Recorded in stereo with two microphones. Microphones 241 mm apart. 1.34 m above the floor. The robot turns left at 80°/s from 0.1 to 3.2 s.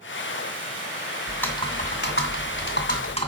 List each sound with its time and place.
1.3 s typing on a keyboard: 175° right, 2 m; by 3.3 s 30° left, 2 m